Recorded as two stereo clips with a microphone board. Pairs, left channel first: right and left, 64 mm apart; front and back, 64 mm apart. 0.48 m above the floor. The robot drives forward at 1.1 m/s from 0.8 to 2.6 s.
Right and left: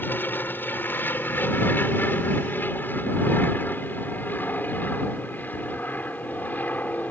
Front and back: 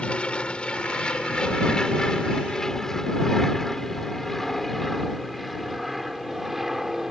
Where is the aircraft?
60° right; by 7.1 s 100° right.